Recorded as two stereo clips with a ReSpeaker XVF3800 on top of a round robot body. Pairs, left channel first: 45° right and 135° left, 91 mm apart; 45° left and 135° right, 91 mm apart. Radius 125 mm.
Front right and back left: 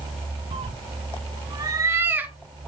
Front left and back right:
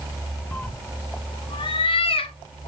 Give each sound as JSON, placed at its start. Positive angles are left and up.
{"t": 0.5, "sound": "a cat meowing", "azimuth_deg": 120, "distance_m": 1.0}